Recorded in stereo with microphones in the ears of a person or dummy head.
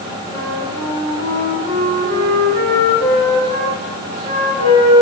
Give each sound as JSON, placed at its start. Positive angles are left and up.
{"t": 0.3, "sound": "a flute", "side_deg": -45, "distance_m": 3.5}